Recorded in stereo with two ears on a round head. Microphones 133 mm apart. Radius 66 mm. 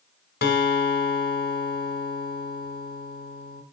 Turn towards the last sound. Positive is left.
turn(degrees=70)  # may be behind; listen again after turning